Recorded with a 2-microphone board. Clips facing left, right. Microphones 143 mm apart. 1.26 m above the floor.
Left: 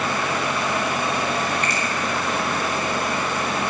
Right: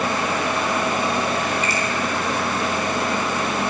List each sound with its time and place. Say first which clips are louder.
1.6 s a finger snap: right 1 dB; 5° right (ahead or behind), 5 m